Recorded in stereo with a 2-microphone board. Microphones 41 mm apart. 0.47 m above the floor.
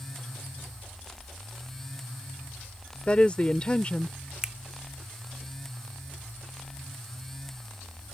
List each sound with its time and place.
3.1 s a woman speaking: 30° left (ahead or behind)
4.4 s a finger snap: 15° right (ahead or behind)